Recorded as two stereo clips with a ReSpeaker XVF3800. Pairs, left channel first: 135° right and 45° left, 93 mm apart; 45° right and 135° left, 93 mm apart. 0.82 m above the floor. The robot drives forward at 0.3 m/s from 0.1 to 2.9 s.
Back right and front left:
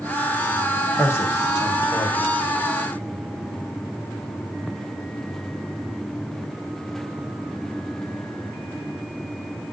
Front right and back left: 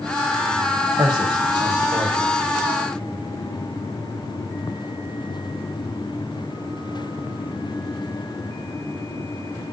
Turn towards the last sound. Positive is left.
turn(degrees=170)